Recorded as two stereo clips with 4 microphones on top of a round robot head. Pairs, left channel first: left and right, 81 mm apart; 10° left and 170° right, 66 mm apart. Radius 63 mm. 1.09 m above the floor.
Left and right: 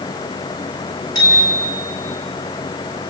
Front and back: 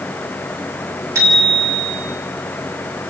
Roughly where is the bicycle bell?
Behind left.